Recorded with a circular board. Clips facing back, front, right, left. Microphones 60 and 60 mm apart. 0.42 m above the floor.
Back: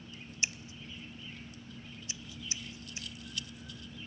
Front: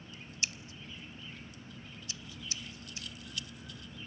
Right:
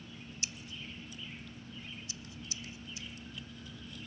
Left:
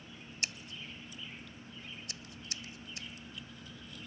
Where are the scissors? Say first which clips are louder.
Back 2 dB, left 4 dB; 115° left, 0.6 m.